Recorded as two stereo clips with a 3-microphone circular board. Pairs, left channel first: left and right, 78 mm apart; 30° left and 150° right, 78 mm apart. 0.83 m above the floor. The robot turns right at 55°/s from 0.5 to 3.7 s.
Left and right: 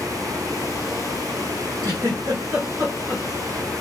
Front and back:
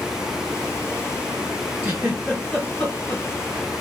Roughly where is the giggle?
Right.